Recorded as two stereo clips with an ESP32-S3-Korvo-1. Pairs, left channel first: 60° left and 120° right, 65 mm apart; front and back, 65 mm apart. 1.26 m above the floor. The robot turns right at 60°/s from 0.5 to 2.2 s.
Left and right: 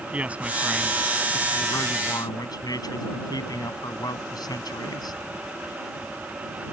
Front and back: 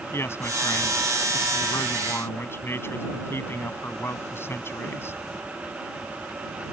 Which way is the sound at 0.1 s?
50° right.